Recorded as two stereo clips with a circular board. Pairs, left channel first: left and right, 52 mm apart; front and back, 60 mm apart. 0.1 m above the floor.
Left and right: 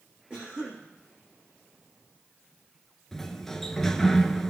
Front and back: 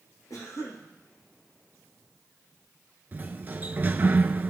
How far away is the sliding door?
About 0.6 m.